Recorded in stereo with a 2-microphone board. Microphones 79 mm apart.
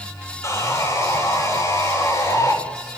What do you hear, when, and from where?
0.4 s sawing: 45° left (ahead or behind), 4.5 m